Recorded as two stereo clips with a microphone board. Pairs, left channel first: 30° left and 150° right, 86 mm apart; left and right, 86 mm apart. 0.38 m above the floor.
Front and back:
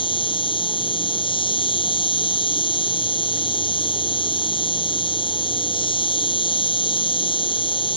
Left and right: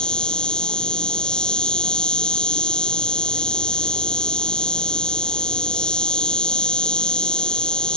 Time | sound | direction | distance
0.0 | an insect | 10° left | ?